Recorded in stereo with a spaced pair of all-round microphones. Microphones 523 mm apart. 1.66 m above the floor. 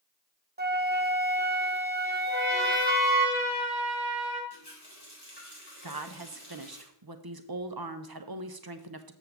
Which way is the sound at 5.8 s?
45° right (ahead or behind).